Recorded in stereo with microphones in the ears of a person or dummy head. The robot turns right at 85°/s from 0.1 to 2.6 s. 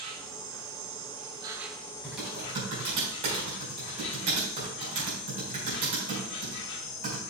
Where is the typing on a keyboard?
15° left (ahead or behind), 4.5 m; by 7.2 s 35° right (ahead or behind), 4.5 m.